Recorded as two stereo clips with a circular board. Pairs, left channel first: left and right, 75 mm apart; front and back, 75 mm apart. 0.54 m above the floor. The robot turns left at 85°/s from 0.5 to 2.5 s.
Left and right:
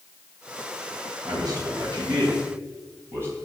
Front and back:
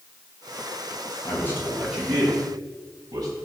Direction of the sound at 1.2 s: 40° right.